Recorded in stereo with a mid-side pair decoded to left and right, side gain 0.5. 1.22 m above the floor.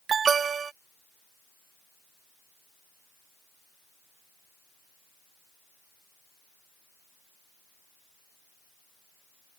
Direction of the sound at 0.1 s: 40° right.